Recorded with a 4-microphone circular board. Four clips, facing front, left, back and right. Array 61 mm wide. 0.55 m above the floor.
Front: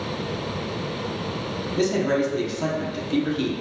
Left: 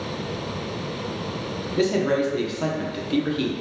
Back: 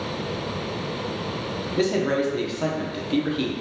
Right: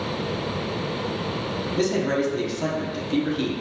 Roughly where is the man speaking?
Behind left.